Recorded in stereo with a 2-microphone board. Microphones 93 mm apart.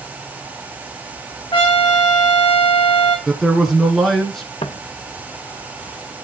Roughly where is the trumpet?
Left.